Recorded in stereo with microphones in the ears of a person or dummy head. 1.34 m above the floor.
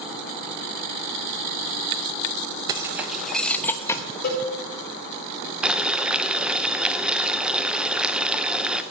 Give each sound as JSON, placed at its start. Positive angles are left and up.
{"t": 2.7, "sound": "keys jangling", "side_deg": -25, "distance_m": 0.6}
{"t": 4.2, "sound": "a cowbell", "side_deg": 55, "distance_m": 4.5}
{"t": 5.6, "sound": "boiling", "side_deg": -10, "distance_m": 0.6}